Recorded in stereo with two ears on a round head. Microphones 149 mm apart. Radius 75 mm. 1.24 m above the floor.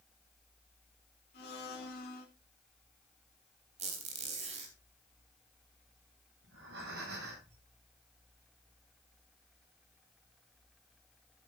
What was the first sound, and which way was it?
A blender, 65° left (ahead or behind).